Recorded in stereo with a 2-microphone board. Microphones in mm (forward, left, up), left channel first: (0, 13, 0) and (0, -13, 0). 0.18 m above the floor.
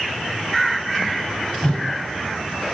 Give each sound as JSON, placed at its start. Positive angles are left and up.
{"t": 1.6, "sound": "a whoosh", "side_deg": 35, "distance_m": 0.7}